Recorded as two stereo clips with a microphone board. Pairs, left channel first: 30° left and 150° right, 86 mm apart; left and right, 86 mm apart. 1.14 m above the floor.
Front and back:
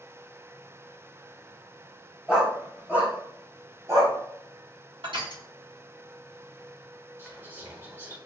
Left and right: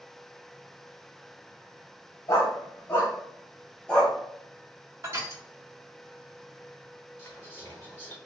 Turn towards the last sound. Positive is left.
turn(degrees=150)